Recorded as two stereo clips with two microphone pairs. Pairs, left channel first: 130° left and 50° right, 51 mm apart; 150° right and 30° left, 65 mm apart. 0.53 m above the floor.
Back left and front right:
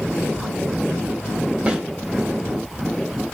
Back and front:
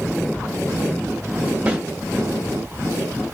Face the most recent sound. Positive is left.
turn(degrees=-5)